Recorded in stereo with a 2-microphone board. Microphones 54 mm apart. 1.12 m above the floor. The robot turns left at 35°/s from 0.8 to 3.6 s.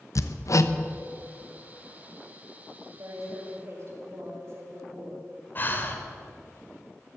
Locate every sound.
0.1 s hammering: 70° left (ahead or behind), 0.7 m
3.0 s a woman speaking: 70° right (ahead or behind), 6 m; by 5.3 s 45° right (ahead or behind), 6 m
5.5 s breathing: 35° left (ahead or behind), 1.7 m